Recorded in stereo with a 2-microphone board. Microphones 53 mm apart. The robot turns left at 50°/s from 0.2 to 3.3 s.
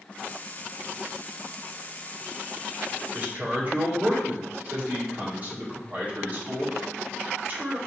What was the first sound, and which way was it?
A man speaking, 25° right (ahead or behind).